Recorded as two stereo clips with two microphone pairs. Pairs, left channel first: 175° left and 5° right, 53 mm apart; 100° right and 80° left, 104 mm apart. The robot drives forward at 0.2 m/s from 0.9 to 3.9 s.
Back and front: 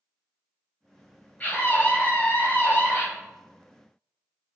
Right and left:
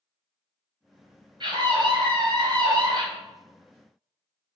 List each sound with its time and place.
1.4 s a scream: 125° left, 2.5 m; by 3.1 s 130° left, 2.5 m